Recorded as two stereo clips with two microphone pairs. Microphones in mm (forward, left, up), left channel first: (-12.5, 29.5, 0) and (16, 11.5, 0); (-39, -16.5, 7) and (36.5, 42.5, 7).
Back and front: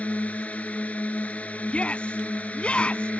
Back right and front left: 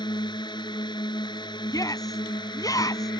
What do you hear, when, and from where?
0.0 s a drone: 175° right
1.7 s a shout: 175° right